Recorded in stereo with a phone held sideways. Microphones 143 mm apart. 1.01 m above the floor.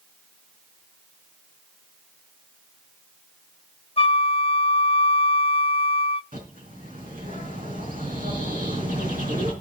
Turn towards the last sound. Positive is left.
turn(degrees=-85)